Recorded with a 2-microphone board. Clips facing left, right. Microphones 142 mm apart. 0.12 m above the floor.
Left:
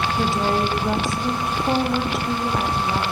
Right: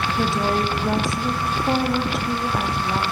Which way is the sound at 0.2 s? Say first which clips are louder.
Even; centre (ahead or behind).